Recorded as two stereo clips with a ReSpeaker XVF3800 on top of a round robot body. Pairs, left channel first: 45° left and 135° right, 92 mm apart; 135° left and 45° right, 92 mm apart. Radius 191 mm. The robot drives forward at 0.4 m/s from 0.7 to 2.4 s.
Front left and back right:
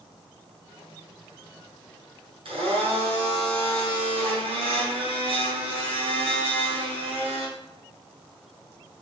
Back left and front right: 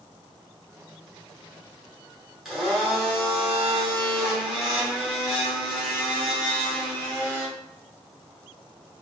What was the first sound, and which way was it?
A blender, 130° right.